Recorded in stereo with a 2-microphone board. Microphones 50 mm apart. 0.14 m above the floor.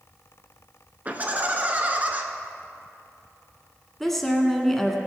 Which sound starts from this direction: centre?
A woman speaking, at 4.0 s.